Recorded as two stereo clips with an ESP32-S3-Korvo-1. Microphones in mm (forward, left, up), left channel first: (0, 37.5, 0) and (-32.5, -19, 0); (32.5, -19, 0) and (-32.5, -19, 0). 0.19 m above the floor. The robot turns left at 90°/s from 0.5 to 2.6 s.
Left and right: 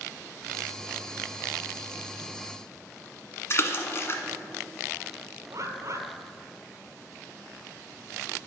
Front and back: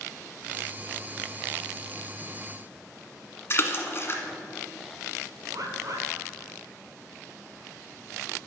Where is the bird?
155° right, 0.8 m.